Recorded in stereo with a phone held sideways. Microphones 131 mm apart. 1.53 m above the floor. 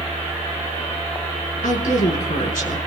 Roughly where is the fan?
Right.